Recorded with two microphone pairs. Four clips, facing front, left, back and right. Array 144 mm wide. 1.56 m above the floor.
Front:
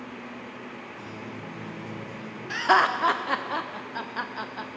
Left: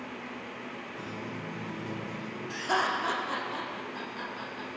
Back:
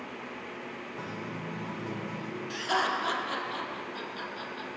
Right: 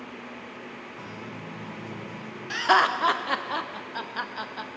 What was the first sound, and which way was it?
A guitar, 170° left.